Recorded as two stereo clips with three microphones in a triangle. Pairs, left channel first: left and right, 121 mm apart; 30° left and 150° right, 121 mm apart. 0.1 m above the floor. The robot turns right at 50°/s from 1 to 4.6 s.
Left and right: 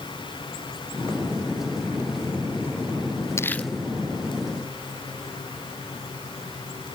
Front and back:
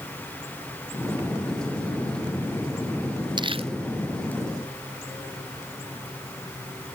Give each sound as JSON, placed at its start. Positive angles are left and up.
{"t": 3.4, "sound": "crumpling", "azimuth_deg": 160}